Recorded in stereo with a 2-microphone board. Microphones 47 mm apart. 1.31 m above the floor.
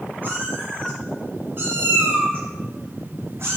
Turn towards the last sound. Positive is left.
turn(degrees=-65)  # may be behind; listen again after turning